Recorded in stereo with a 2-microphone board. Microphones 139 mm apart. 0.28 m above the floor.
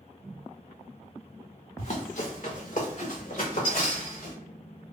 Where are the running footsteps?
50° left (ahead or behind), 1.3 m; by 4.3 s 70° left (ahead or behind), 3 m.